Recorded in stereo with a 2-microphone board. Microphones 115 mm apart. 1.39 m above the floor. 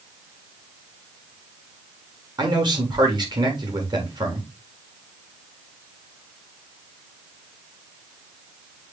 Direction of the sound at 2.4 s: 40° right (ahead or behind).